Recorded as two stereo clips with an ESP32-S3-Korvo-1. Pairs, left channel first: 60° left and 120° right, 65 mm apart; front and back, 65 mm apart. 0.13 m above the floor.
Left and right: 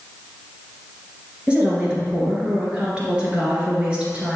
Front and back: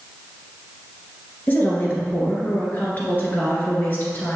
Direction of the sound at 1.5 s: 50° right.